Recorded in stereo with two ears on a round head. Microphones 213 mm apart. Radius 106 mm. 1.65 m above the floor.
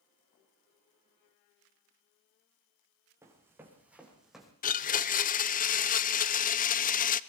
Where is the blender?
35° left (ahead or behind), 0.9 m.